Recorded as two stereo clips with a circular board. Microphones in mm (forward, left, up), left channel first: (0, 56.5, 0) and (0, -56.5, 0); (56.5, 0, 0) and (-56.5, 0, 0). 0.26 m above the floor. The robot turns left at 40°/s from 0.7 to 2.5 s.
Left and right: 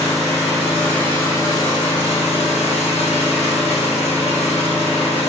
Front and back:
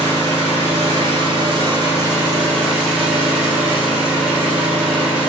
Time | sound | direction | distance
0.0 | an engine running | 175° left | 1.9 m